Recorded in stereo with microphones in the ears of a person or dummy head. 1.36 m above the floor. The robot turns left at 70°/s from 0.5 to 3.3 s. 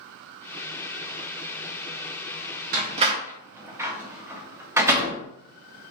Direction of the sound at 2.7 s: 50° right (ahead or behind).